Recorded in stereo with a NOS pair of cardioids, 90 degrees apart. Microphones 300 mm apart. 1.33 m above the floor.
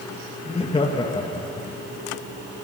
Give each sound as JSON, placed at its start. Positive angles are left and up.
{"t": 0.5, "sound": "laughter", "azimuth_deg": 20, "distance_m": 1.4}